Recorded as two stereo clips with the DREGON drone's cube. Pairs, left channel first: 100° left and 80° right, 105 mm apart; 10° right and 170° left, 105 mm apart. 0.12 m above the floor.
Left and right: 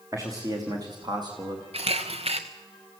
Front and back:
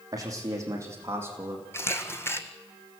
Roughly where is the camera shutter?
Right.